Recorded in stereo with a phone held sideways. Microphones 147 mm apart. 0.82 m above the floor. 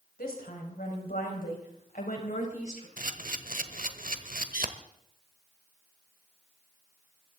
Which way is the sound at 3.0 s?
70° right (ahead or behind).